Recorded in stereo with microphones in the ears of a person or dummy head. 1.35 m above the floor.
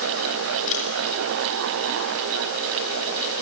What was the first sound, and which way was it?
A camera shutter, 40° left (ahead or behind).